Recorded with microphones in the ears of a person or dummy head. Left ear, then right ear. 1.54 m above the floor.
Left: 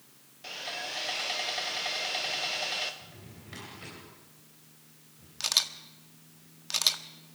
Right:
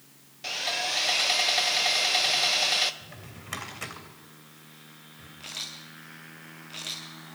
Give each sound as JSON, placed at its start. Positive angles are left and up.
{"t": 0.4, "sound": "sawing", "side_deg": -25, "distance_m": 0.9}
{"t": 3.0, "sound": "a drawer", "side_deg": -45, "distance_m": 3.0}
{"t": 5.4, "sound": "a camera shutter", "side_deg": 55, "distance_m": 1.5}